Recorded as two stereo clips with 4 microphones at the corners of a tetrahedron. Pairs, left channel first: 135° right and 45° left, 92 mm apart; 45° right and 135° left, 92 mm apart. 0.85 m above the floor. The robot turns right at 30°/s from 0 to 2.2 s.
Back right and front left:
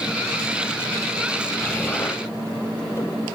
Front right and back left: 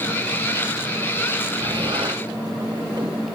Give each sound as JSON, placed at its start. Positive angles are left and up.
{"t": 1.6, "sound": "an explosion", "azimuth_deg": 150, "distance_m": 1.1}